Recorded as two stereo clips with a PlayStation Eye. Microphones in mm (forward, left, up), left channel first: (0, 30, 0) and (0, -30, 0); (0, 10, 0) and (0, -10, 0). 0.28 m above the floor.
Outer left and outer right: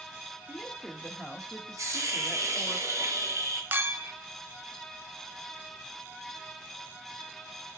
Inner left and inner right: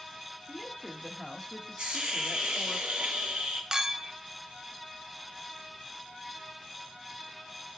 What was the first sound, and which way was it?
A woman speaking, 10° left (ahead or behind).